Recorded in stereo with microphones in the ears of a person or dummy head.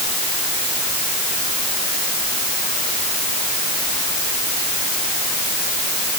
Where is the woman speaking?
I don't hear a woman speaking.